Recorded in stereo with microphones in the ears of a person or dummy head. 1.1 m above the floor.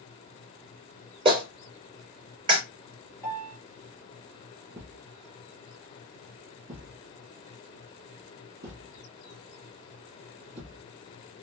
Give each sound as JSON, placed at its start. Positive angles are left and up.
{"t": 1.2, "sound": "a clap", "side_deg": -30, "distance_m": 2.5}
{"t": 3.2, "sound": "a piano", "side_deg": -50, "distance_m": 3.0}
{"t": 4.7, "sound": "a thud", "side_deg": -45, "distance_m": 3.0}